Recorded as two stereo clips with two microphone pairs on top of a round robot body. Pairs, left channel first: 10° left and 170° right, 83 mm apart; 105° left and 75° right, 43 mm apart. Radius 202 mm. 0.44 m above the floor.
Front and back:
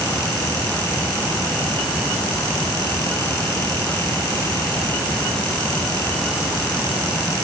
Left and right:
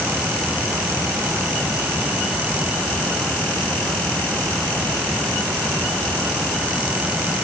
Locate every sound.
Only background noise.